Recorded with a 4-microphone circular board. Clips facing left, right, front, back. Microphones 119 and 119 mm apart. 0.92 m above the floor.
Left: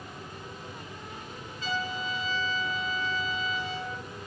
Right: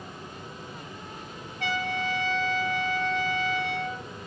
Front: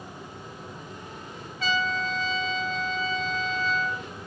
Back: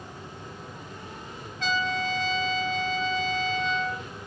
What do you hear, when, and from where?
1.6 s a trumpet: 85° right, 3.5 m